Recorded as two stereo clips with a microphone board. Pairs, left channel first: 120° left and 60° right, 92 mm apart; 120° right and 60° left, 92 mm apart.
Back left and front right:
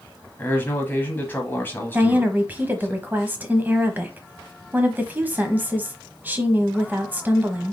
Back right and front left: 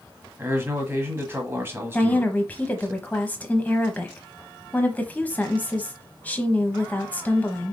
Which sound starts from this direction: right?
A woman speaking, at 1.9 s.